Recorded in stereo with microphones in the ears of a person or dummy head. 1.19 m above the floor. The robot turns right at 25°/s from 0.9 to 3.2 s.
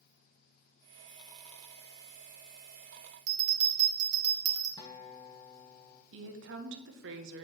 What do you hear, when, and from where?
3.3 s a bell: 40° right (ahead or behind), 3 m
4.8 s a guitar: 25° left (ahead or behind), 1.3 m
6.1 s a woman speaking: 60° right (ahead or behind), 1.0 m